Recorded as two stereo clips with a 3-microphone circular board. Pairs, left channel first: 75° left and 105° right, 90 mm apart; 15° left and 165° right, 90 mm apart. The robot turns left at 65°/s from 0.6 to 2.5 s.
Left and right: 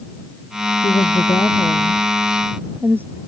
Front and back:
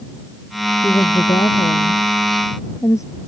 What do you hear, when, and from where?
0.8 s a woman speaking: 70° left; by 3.2 s 40° right